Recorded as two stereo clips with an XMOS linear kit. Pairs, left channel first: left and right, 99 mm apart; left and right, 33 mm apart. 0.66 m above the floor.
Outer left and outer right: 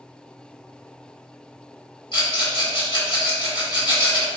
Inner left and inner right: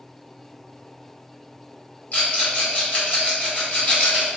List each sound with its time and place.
2.1 s a rattle: 55° left (ahead or behind), 1.4 m